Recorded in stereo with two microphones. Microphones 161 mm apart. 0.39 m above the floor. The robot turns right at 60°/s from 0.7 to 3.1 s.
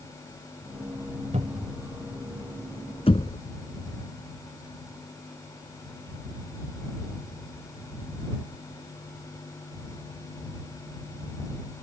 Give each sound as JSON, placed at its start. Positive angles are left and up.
{"t": 1.3, "sound": "a cupboard door", "side_deg": -50}
{"t": 3.1, "sound": "knocking", "side_deg": 40}